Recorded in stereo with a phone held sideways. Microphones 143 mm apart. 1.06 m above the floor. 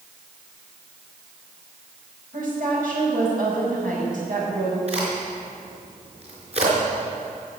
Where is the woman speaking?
75° right (ahead or behind), 5 m.